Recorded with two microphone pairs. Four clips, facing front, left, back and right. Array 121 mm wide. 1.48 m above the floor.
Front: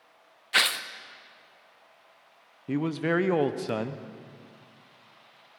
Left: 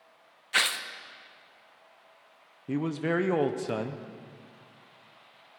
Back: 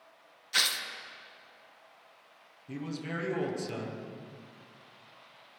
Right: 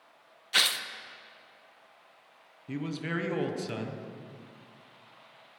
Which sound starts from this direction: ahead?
Tearing paper, at 0.5 s.